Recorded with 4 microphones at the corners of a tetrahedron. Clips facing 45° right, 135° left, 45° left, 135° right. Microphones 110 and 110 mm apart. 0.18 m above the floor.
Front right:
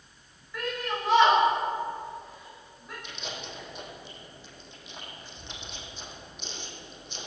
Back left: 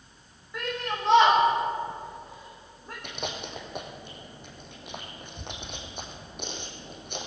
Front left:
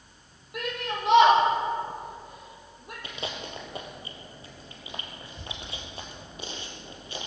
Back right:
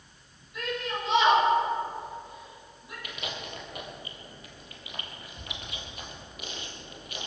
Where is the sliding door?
No sliding door in this recording.